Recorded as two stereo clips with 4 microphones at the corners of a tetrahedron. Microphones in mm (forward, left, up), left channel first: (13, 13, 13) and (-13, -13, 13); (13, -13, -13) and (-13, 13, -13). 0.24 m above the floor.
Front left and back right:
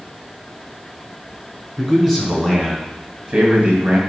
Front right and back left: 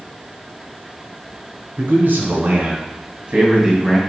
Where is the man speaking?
145° left, 3 m; by 4.0 s 145° right, 1.6 m.